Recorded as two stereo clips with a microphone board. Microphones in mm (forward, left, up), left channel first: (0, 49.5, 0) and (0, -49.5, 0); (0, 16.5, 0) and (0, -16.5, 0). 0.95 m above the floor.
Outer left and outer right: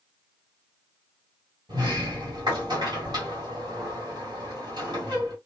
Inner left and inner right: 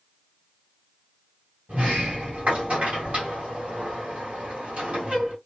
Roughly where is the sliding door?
Right.